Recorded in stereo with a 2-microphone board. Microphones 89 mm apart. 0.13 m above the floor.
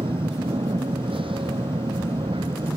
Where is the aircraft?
75° right (ahead or behind).